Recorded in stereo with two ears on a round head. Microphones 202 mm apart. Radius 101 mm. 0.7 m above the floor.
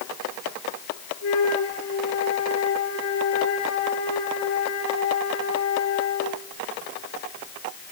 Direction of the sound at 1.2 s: 65° left (ahead or behind).